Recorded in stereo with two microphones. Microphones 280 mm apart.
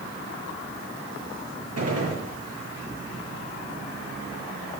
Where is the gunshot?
60° right (ahead or behind), 7.5 m.